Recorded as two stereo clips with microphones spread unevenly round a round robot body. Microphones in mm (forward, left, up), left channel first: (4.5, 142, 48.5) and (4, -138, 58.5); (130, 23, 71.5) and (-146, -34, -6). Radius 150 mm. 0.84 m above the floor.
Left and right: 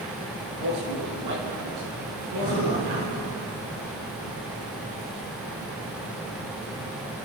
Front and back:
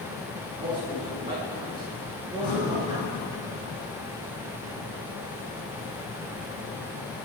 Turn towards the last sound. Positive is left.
turn(degrees=-30)